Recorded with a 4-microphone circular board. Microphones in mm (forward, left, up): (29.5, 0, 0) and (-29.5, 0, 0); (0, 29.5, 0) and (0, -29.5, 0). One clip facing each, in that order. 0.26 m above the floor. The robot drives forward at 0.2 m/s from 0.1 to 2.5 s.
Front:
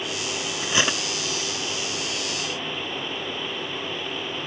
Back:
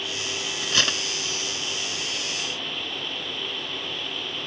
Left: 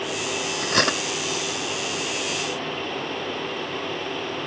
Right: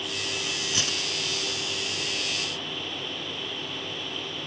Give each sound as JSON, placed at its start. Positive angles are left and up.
{"t": 0.6, "sound": "cutlery clinking", "azimuth_deg": 70}